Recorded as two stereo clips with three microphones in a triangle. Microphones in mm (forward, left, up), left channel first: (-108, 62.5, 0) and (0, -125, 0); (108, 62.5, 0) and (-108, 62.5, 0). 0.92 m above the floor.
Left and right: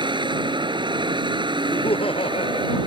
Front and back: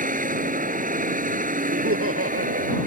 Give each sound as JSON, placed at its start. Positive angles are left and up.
{"t": 0.0, "sound": "a vehicle", "azimuth_deg": -130}
{"t": 1.7, "sound": "laughter", "azimuth_deg": -175}